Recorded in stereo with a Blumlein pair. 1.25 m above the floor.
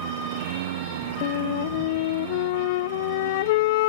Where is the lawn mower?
50° right; by 3.9 s 55° right.